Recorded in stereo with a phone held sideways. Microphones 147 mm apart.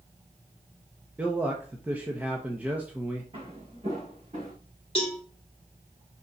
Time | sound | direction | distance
1.2 | a man speaking | 10° right (ahead or behind) | 1.0 m
3.3 | footsteps | 40° right (ahead or behind) | 3.5 m
5.0 | a cowbell | 40° left (ahead or behind) | 2.5 m